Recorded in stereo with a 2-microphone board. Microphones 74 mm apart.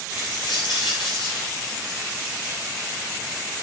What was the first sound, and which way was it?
A dropped coin, 85° left.